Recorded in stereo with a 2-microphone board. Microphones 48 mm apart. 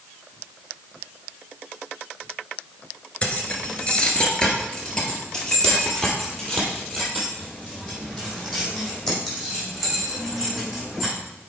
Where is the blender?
I don't hear a blender.